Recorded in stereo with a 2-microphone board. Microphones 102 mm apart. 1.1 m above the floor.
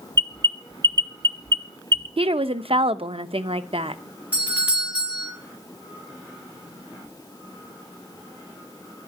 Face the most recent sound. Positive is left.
turn(degrees=-15)  # may be behind; listen again after turning